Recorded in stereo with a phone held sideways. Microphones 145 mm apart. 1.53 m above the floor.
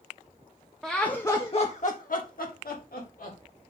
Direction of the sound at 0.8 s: 5° right (ahead or behind).